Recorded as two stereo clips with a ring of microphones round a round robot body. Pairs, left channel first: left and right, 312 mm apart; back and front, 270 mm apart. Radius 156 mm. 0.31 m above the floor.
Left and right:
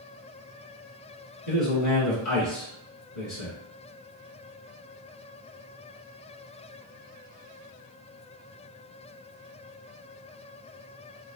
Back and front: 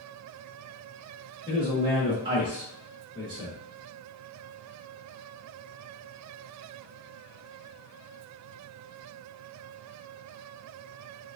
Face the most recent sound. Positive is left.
turn(degrees=70)